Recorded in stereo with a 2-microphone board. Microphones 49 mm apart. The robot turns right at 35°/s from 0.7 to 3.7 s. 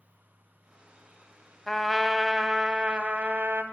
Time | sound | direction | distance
1.7 | a trumpet | 170° left | 0.6 m